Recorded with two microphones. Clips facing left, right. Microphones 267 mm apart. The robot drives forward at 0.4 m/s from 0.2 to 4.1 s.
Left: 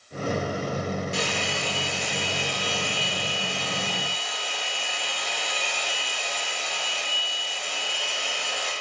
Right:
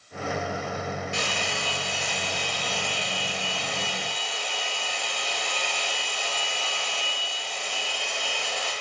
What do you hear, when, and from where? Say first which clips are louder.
1.1 s a hair dryer: left 3 dB; 40° left (ahead or behind), 0.9 m; by 8.7 s 20° left (ahead or behind), 1.9 m